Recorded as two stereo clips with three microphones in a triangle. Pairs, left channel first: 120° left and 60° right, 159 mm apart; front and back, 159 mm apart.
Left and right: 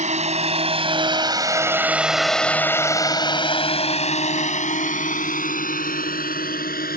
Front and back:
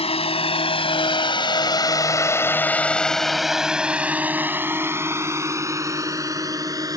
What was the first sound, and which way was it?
A drone, 40° right.